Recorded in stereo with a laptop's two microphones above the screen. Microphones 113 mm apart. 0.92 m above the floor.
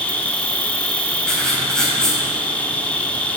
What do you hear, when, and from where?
0.0 s an insect: 15° left (ahead or behind), 0.8 m
1.3 s writing: 5° left (ahead or behind), 4 m